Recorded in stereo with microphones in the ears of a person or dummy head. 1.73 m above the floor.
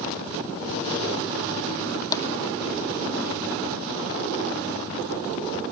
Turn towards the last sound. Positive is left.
turn(degrees=15)  # may be behind; listen again after turning